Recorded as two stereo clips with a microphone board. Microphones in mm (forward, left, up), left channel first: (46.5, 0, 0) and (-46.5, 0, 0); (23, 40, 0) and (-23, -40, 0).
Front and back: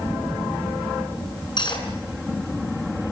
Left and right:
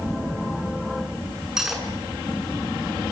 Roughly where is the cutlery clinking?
Ahead right.